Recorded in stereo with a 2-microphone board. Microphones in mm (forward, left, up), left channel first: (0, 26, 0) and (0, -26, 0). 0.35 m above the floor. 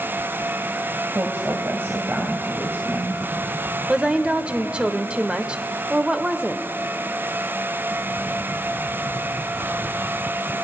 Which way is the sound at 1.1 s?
45° right (ahead or behind).